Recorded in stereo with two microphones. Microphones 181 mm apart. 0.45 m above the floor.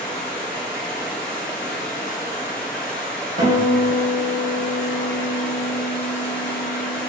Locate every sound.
0.0 s running water: 5° left (ahead or behind), 1.6 m
3.4 s a guitar: 35° right (ahead or behind), 1.4 m